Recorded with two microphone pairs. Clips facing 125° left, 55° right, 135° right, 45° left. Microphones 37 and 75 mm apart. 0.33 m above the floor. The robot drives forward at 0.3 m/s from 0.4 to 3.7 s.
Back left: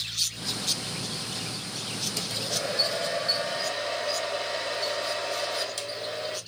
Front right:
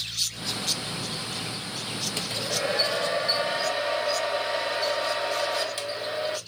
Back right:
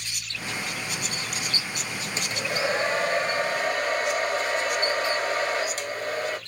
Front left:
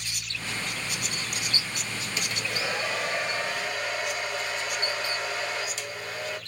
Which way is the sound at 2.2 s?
95° right.